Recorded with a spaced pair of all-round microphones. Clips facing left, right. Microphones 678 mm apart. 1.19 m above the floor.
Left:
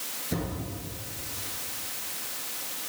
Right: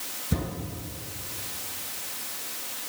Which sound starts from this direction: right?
A thud, at 0.3 s.